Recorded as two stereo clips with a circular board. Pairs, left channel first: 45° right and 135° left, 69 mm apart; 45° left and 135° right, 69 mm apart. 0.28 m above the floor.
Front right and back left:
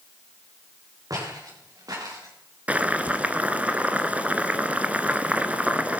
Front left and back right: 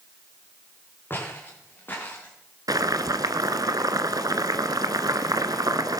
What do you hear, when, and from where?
1.1 s footsteps: 105° left, 6 m; by 2.4 s 110° left, 7.5 m
2.7 s boiling: 155° right, 1.0 m